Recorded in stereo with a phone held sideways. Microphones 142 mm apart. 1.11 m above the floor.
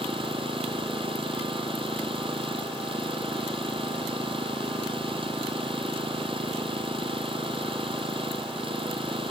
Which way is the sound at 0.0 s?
40° right (ahead or behind).